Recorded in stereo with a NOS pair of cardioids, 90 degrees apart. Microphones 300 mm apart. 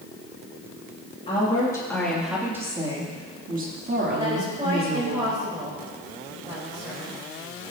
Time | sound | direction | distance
1.3 | a woman speaking | 20° left | 2.5 m
4.2 | a woman speaking | 15° right | 4 m